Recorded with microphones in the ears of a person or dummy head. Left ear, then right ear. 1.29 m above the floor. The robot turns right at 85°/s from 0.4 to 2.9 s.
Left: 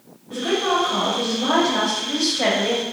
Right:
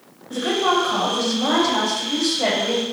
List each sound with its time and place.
0.3 s a woman speaking: 125° right, 1.0 m; by 2.8 s 80° left, 1.0 m